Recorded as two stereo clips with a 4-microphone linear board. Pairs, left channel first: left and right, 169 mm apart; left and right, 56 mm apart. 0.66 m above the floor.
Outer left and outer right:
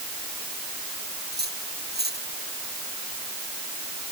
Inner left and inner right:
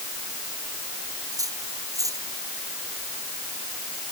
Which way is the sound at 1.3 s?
75° right (ahead or behind).